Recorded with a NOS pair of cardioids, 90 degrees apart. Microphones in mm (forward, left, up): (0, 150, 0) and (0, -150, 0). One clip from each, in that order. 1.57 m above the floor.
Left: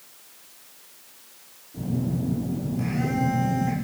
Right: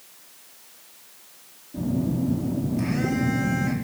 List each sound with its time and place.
1.7 s a phone buzzing: 65° right, 4.5 m